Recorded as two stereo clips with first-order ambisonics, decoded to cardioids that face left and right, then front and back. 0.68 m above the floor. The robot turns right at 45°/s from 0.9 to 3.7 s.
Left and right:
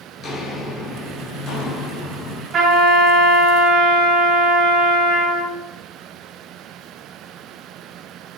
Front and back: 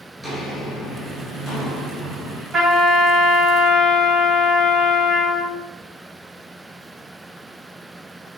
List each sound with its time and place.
0.2 s footsteps: 65° left, 0.6 m; by 2.4 s 85° left, 1.9 m
2.5 s a trumpet: 115° right, 1.2 m; by 5.5 s 60° right, 1.2 m